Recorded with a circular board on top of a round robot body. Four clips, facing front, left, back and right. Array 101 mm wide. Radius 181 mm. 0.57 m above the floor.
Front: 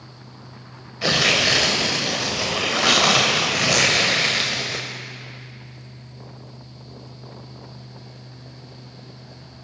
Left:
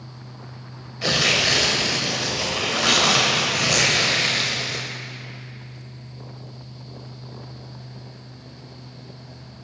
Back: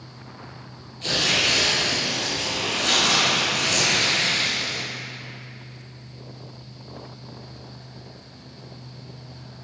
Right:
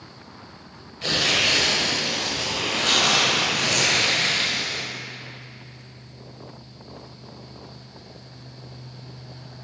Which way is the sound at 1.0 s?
25° left.